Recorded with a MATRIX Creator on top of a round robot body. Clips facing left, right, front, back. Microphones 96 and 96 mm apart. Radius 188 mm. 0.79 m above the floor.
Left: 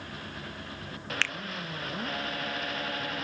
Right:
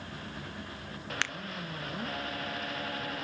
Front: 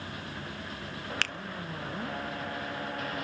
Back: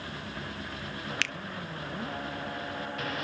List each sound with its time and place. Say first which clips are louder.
1.2 s a finger snap: left 1 dB, even; 25° right, 0.7 m